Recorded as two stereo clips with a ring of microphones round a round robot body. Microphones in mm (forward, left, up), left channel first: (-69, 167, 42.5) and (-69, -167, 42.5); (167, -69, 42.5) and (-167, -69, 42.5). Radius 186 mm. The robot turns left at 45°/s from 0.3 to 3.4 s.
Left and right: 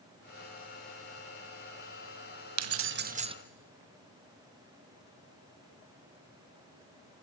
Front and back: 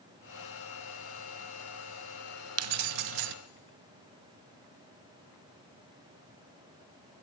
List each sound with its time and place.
2.6 s keys jangling: 130° right, 0.7 m; by 3.4 s 165° right, 0.7 m